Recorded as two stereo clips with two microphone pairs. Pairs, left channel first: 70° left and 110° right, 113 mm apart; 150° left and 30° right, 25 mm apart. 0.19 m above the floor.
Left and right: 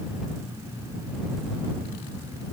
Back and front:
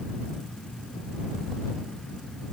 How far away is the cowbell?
No cowbell in this recording.